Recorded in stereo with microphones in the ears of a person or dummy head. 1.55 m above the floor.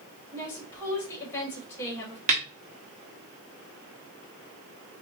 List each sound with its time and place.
0.3 s a woman speaking: 15° left (ahead or behind), 2 m
2.3 s a snare drum: 35° right (ahead or behind), 0.9 m